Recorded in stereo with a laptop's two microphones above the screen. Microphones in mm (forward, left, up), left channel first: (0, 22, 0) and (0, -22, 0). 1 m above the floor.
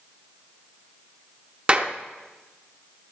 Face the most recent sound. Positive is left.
turn(degrees=-25)  # may be behind; listen again after turning